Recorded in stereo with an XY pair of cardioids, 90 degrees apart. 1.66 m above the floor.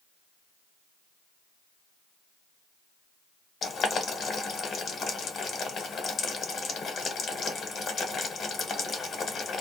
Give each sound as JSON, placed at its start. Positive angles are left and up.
{"t": 3.6, "sound": "boiling", "azimuth_deg": 55, "distance_m": 1.0}